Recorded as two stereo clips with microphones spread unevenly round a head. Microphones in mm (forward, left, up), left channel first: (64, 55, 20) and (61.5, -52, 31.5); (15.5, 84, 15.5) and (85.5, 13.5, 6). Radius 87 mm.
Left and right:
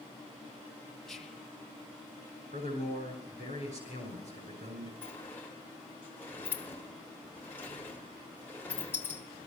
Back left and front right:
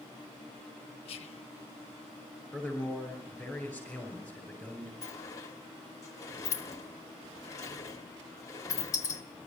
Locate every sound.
1.1 s whispering: 175° left, 0.7 m
2.5 s a man speaking: 125° right, 6 m
5.0 s a sliding door: 170° left, 0.7 m